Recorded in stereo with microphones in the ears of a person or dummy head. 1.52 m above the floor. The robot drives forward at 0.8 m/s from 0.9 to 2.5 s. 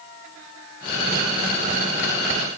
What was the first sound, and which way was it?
Only background noise.